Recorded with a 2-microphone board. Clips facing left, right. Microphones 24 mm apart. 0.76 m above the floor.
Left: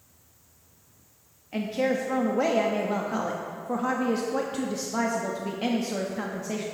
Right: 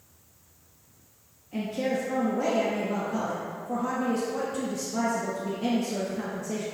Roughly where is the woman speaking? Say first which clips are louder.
Left 2 dB; left.